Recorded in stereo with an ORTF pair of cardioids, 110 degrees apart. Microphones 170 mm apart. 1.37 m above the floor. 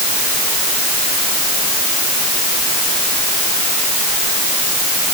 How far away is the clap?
I don't hear a clap.